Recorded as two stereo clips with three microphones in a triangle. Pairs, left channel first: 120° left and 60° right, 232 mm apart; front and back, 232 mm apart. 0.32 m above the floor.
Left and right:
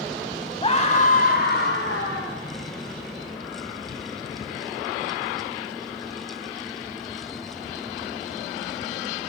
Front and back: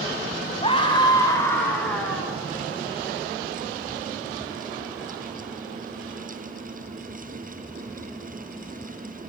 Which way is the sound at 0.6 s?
60° left.